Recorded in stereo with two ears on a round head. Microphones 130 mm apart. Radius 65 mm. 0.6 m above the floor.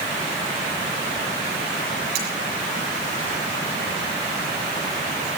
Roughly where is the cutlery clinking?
Right.